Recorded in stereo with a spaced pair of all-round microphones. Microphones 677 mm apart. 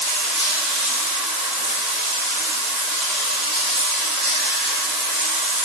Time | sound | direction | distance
0.0 | running water | 45° right (ahead or behind) | 1.8 m